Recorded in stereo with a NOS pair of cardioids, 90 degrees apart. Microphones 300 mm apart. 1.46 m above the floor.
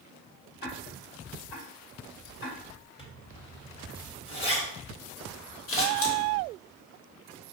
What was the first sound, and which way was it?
Ticking, 35° left.